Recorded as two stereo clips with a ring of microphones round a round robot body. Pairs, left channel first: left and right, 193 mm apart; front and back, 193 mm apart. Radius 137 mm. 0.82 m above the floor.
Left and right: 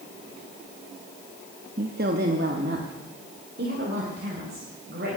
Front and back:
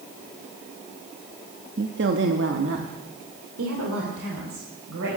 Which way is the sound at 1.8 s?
140° right.